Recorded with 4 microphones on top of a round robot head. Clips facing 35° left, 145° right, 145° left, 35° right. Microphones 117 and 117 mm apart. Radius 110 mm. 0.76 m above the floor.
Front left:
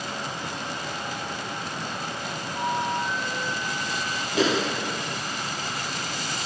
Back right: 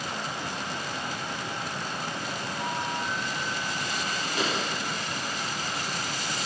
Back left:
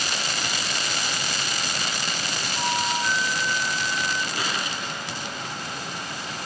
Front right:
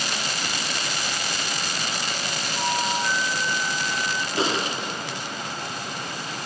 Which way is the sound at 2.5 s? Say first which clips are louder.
Front left 7 dB, front right 1 dB; 55° left.